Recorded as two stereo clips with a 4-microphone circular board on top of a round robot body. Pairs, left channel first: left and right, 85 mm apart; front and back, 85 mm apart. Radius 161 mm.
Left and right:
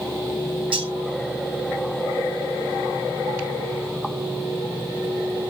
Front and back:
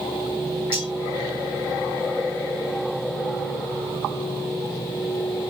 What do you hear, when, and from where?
0.7 s cutlery clinking: 110° right, 2.5 m